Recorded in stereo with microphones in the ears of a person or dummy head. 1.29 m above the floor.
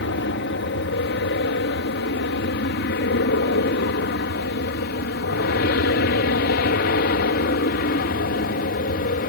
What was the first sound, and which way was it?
An aircraft, 60° left (ahead or behind).